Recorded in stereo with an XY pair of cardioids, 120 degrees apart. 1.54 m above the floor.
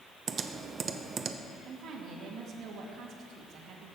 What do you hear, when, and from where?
0.3 s typing on a keyboard: 35° right, 0.8 m
1.6 s a woman speaking: 60° right, 2 m